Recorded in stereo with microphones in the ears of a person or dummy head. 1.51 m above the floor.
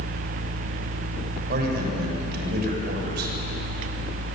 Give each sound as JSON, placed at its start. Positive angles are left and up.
{"t": 1.5, "sound": "a man speaking", "side_deg": -60, "distance_m": 7.5}